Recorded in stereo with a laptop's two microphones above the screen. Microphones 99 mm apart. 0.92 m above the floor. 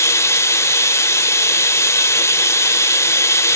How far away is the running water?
About 0.7 m.